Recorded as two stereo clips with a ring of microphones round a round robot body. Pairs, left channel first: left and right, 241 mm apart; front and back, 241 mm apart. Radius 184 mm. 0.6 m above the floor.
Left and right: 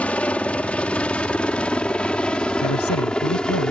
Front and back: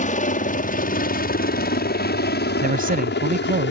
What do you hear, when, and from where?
0.0 s a helicopter: 10° left; by 3.7 s 5° left
2.6 s a man speaking: 125° left